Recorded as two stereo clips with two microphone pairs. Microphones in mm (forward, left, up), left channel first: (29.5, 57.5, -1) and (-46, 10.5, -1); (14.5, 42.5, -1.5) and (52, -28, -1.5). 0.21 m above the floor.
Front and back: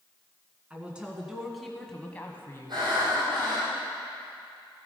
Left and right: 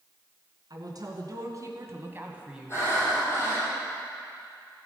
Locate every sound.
0.7 s a woman speaking: 75° right, 2 m; by 3.7 s 50° left, 1.8 m
2.7 s breathing: 175° left, 5 m